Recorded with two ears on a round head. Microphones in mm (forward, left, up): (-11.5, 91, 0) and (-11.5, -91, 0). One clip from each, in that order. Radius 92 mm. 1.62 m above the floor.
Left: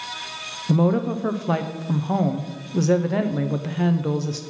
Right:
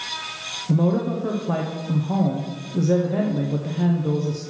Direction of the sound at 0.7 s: 50° left (ahead or behind).